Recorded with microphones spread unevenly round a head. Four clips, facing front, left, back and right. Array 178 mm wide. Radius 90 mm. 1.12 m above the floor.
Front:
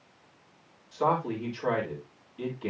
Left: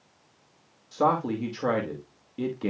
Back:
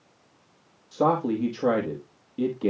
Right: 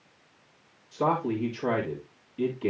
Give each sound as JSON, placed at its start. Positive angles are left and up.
{"t": 0.9, "sound": "a man speaking", "azimuth_deg": 160, "distance_m": 2.5}